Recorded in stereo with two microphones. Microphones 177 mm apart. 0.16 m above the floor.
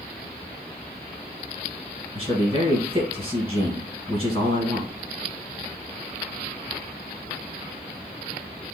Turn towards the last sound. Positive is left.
turn(degrees=30)  # may be behind; listen again after turning